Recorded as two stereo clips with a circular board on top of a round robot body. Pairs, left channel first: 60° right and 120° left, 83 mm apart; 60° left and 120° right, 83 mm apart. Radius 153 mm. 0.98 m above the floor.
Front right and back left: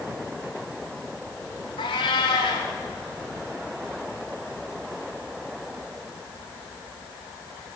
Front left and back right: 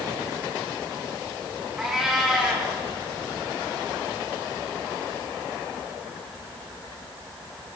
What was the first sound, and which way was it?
A cat meowing, 35° right.